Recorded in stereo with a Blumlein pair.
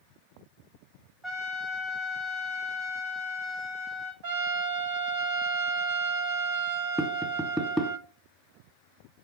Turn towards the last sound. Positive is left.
turn(degrees=0)